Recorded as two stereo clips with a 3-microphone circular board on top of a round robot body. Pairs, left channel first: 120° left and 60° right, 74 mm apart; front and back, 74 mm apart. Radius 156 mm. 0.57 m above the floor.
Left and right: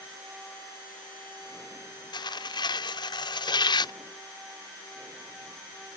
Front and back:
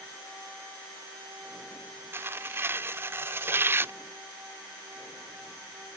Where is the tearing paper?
120° left.